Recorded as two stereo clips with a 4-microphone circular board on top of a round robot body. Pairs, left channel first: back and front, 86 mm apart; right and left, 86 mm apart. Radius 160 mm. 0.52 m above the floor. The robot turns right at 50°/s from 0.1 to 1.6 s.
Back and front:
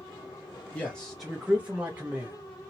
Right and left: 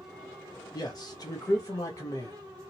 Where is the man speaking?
110° right, 1.2 m; by 2.4 s 70° right, 1.2 m.